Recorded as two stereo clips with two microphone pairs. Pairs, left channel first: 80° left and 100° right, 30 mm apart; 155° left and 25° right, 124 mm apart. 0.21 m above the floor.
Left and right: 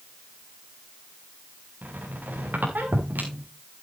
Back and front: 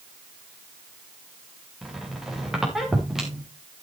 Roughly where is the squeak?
Right.